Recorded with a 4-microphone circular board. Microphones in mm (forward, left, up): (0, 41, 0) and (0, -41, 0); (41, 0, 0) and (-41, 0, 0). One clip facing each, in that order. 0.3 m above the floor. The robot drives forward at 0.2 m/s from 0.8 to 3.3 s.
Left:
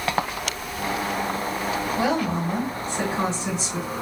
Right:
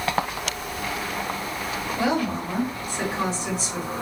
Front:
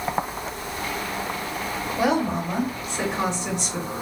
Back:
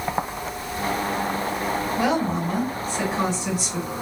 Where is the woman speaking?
75° left, 1.2 m; by 3.9 s 110° left, 1.2 m.